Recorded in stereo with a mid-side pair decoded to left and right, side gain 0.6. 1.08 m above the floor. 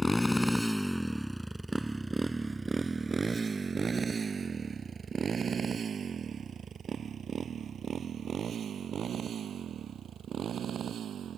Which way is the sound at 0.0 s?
5° left.